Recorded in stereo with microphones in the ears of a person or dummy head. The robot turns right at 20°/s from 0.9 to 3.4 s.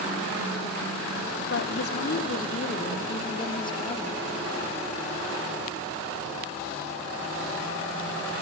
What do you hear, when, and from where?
1.5 s a woman speaking: 120° left, 1.8 m; by 4.2 s 155° left, 1.8 m